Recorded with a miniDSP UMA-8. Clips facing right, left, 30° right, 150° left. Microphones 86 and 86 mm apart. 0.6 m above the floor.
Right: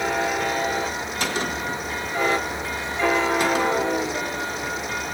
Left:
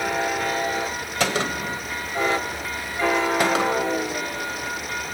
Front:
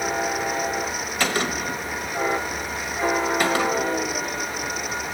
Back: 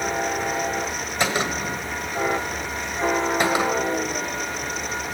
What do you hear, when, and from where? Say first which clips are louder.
1.2 s a gunshot: left 3 dB, back 1 dB; 80° left, 1.5 m